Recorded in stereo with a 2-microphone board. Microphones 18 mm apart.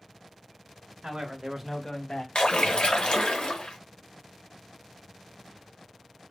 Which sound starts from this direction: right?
A man speaking, at 1.0 s.